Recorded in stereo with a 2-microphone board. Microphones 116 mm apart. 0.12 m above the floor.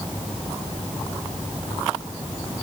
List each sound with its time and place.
Only background noise.